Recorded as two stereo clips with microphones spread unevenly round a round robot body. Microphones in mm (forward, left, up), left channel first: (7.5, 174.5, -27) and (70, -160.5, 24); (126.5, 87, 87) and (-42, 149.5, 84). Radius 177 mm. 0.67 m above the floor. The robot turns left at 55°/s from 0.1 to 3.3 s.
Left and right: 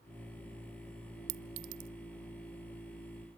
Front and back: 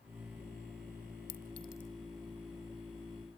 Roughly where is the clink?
Right.